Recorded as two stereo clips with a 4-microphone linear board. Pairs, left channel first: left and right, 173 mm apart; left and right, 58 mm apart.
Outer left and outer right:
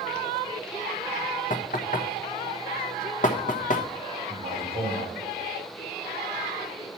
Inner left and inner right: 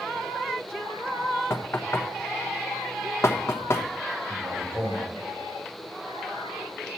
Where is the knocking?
50° left (ahead or behind), 1.0 m.